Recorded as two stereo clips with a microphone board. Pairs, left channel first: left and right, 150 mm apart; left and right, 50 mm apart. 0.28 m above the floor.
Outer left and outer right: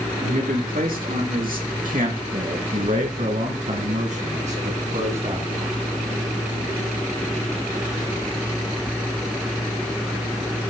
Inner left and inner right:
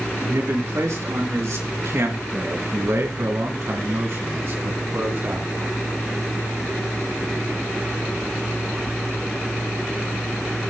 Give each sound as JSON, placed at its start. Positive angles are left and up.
{"t": 0.2, "sound": "a man speaking", "side_deg": -75, "distance_m": 4.0}